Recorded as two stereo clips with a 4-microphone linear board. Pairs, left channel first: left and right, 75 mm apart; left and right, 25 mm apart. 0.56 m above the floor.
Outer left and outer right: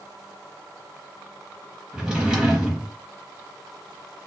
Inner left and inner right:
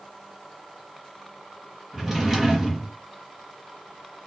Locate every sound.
1.9 s a drawer: 15° right (ahead or behind), 0.7 m